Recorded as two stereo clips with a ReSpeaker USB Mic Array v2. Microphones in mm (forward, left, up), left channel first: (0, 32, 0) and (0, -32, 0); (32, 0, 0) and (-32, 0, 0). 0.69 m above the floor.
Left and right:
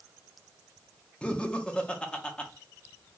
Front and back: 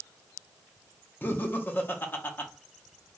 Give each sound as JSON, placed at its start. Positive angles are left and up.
{"t": 1.2, "sound": "laughter", "azimuth_deg": 30, "distance_m": 0.6}